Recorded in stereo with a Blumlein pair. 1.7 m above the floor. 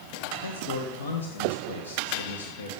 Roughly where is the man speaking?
Ahead left.